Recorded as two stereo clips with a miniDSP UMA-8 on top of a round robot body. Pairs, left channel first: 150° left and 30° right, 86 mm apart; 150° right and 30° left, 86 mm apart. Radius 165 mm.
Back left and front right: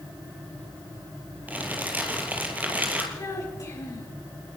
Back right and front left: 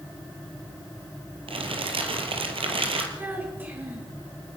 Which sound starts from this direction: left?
A child speaking, at 3.2 s.